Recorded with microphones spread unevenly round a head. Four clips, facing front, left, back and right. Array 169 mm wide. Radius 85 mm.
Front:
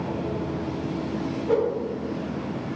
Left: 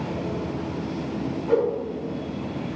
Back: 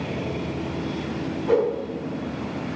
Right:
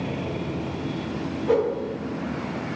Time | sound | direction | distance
1.5 | a whoosh | 135° right | 1.2 m